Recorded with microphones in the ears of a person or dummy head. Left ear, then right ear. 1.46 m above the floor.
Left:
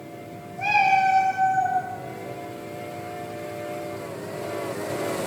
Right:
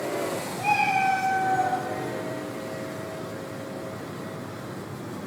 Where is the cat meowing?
45° left (ahead or behind), 1.7 m.